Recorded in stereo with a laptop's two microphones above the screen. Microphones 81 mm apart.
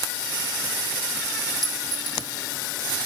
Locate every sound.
1.6 s a clink: 55° right (ahead or behind)